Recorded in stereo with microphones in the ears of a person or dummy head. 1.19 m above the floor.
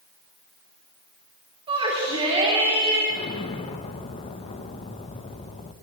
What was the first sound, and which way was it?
A shout, 25° right (ahead or behind).